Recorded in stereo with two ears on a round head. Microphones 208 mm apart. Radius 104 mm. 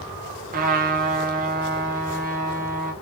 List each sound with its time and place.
0.5 s a trumpet: 40° right (ahead or behind), 1.1 m